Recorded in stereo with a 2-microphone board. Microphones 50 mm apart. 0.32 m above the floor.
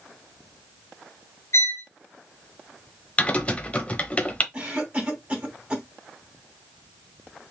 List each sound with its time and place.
1.5 s a violin: 60° left (ahead or behind), 1.1 m
3.2 s typing on a keyboard: 25° left (ahead or behind), 0.8 m
4.5 s a cough: 20° right (ahead or behind), 2.5 m